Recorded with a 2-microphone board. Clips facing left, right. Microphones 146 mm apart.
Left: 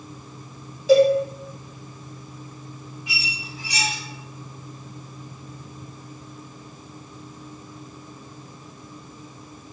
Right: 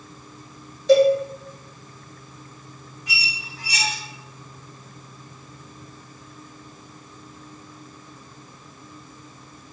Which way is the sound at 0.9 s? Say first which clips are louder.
Even; 5° left (ahead or behind).